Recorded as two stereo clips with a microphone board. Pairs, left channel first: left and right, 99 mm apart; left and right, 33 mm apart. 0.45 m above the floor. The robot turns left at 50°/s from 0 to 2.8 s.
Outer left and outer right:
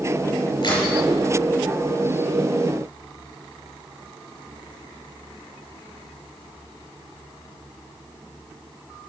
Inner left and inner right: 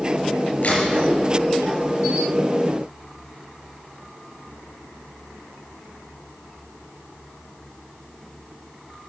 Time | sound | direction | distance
0.6 | a crack | 50° left (ahead or behind) | 5.5 m